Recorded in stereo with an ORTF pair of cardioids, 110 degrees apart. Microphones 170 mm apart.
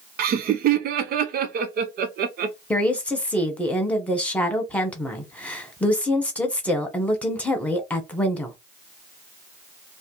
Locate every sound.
0.2 s laughter: 55° right, 0.8 m
2.7 s a woman speaking: 5° left, 1.1 m